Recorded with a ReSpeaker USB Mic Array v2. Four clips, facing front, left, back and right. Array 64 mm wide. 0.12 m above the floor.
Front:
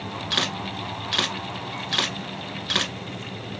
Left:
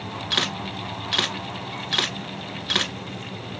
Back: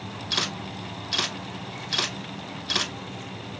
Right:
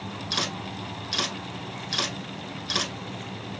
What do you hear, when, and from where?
0.3 s a camera shutter: 60° left, 0.7 m